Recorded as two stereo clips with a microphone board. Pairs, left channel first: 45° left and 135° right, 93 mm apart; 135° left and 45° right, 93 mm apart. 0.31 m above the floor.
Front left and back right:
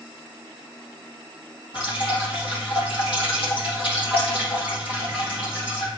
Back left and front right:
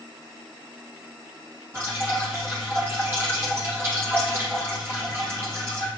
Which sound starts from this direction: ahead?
Dripping, at 1.7 s.